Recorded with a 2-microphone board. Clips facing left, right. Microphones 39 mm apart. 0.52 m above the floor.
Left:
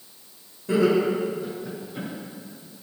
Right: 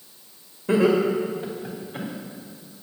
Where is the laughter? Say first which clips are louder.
Right 1 dB; 35° right (ahead or behind), 2.0 m; by 2.1 s 50° right (ahead or behind), 3 m.